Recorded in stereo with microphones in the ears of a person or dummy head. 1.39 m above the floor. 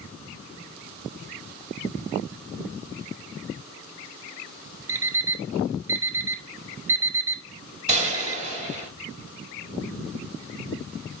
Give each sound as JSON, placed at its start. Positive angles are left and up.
{"t": 4.9, "sound": "an alarm clock", "side_deg": -15, "distance_m": 0.9}
{"t": 7.9, "sound": "a gunshot", "side_deg": -40, "distance_m": 7.0}